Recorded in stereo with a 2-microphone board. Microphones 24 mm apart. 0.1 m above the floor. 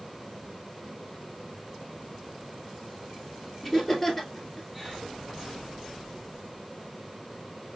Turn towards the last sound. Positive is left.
turn(degrees=15)  # may be behind; listen again after turning